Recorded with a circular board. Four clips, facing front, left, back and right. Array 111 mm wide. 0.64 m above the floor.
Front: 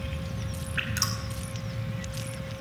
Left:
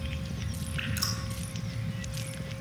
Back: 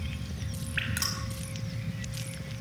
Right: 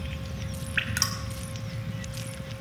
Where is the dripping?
100° right, 4.5 m.